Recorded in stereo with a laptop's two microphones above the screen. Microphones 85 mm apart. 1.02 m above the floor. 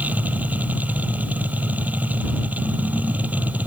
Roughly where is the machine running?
Centre.